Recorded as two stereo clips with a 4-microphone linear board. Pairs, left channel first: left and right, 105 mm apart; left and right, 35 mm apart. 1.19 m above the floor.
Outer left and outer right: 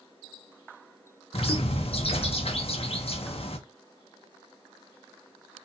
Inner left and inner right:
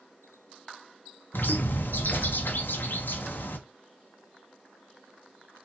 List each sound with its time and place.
1.3 s a bird: 70° left (ahead or behind), 0.6 m